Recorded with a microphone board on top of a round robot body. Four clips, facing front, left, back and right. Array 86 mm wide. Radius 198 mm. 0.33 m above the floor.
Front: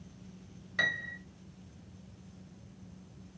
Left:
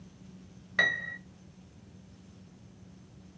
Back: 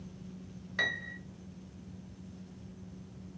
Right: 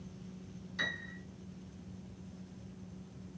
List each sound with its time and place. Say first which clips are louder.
0.8 s a piano: left 10 dB, front 2 dB; 95° left, 1.5 m